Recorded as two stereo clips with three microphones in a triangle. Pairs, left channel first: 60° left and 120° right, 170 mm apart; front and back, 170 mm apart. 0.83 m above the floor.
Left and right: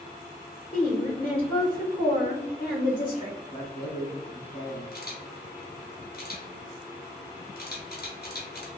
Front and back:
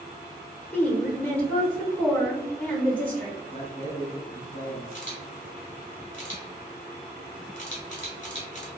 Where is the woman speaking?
80° left, 1.0 m.